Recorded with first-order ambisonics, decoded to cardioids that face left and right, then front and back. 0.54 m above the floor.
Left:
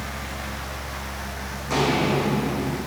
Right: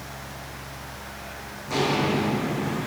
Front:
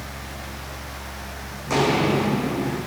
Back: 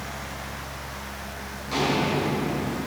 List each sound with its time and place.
1.7 s footsteps: 20° left, 1.5 m; by 2.8 s 25° left, 2.5 m